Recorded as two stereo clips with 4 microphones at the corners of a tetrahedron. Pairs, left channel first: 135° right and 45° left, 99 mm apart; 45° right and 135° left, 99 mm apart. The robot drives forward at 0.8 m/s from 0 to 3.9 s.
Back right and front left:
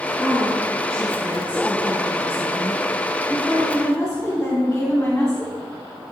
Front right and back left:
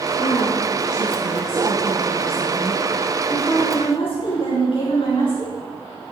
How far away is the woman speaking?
About 6 m.